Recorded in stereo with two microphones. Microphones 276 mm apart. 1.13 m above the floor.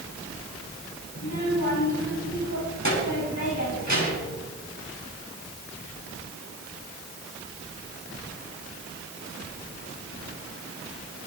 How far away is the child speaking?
About 6.5 m.